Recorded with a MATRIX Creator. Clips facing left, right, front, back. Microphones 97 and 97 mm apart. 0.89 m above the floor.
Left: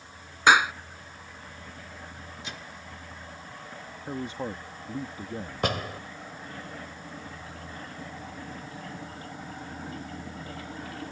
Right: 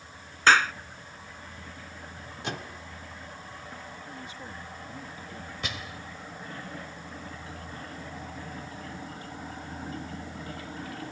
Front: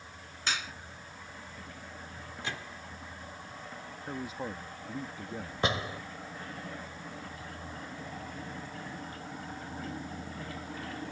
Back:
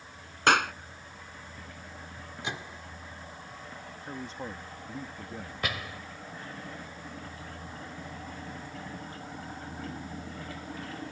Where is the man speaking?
80° left.